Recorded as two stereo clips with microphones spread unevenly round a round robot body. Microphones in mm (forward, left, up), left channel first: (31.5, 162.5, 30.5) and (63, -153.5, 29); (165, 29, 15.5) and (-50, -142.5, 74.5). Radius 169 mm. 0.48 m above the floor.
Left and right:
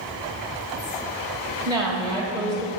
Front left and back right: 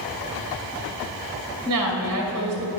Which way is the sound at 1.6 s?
170° left.